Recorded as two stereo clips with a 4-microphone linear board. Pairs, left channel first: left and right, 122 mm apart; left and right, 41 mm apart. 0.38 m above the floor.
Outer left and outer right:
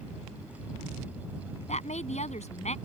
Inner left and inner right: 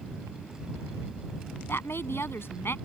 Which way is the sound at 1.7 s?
70° left (ahead or behind).